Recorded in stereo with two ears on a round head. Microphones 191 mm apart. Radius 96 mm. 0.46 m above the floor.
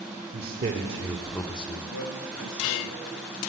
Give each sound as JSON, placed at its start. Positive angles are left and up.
{"t": 0.3, "sound": "a man speaking", "side_deg": -50, "distance_m": 1.2}
{"t": 1.9, "sound": "a man speaking", "side_deg": 70, "distance_m": 2.5}